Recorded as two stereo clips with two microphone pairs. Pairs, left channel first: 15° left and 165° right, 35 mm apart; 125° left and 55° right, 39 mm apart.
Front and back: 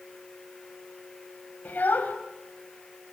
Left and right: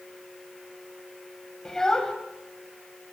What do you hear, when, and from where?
1.6 s a child speaking: 50° left, 3 m